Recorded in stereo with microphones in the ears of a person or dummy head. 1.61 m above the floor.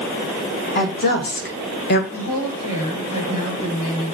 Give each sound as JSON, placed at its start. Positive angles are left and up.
{"t": 0.8, "sound": "a woman speaking", "side_deg": 50, "distance_m": 2.5}
{"t": 2.1, "sound": "a woman speaking", "side_deg": 40, "distance_m": 5.5}